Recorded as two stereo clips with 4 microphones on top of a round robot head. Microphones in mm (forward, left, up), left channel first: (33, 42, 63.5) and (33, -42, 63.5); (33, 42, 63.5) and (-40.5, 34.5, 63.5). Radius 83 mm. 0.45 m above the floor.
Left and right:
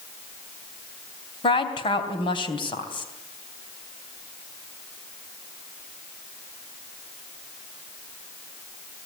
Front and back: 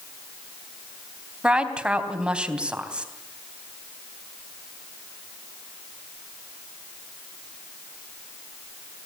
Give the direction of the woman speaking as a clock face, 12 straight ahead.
8 o'clock.